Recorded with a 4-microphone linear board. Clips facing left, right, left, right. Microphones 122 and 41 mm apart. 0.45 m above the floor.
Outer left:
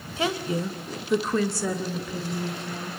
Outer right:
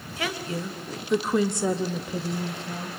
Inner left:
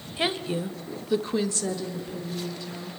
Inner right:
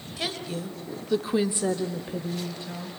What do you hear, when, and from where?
0.2 s a woman speaking: 25° left (ahead or behind), 1.8 m; by 2.9 s 30° right (ahead or behind), 2.5 m